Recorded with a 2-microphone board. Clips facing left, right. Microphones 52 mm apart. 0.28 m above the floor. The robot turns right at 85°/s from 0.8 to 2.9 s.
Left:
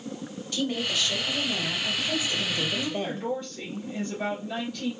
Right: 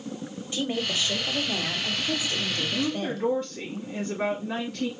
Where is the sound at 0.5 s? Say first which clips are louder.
Even; 20° right (ahead or behind), 1.1 m; by 3.3 s 20° left (ahead or behind), 1.1 m.